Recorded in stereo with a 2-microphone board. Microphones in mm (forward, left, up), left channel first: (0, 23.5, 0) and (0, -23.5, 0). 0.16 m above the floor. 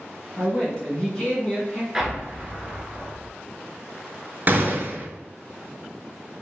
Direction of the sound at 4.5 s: 45° right (ahead or behind).